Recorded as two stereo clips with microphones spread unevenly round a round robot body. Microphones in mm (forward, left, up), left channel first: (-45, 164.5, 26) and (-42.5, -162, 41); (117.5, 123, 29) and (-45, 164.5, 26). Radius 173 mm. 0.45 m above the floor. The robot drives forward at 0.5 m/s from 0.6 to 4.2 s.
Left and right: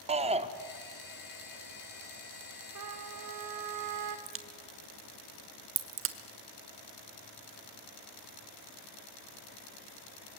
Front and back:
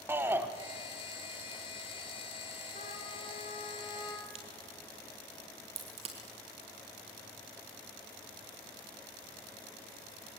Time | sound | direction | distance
0.1 | a shout | 140° right | 0.9 m
2.8 | a trumpet | 60° right | 1.9 m
4.3 | a crack | 140° right | 1.3 m